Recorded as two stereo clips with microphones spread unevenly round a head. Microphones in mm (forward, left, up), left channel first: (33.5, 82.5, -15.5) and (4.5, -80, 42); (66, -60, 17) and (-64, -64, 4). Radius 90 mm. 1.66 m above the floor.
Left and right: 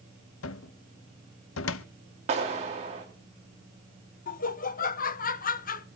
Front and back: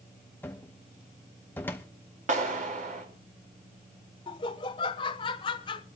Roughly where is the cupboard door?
Left.